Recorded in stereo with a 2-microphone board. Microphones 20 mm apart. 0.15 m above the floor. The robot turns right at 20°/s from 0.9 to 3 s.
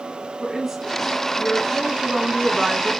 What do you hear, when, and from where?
0.4 s a woman speaking: 145° right, 1.5 m; by 2.9 s 105° right, 1.5 m